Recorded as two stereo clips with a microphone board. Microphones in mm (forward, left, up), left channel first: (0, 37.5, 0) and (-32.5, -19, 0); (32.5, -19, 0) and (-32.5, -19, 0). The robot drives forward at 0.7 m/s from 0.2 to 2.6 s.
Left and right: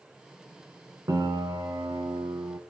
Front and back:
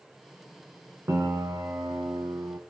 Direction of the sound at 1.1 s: 135° right.